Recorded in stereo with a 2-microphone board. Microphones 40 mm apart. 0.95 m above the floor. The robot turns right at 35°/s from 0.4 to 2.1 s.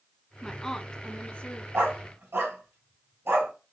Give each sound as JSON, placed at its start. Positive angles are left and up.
{"t": 0.4, "sound": "a woman speaking", "azimuth_deg": 10, "distance_m": 1.0}
{"t": 1.7, "sound": "a dog barking", "side_deg": -85, "distance_m": 3.0}